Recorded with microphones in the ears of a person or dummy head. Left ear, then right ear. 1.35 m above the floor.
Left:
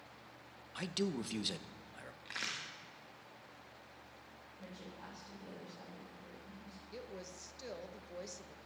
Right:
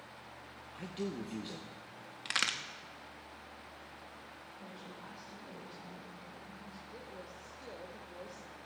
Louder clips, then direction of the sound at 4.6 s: Even; 60° left (ahead or behind).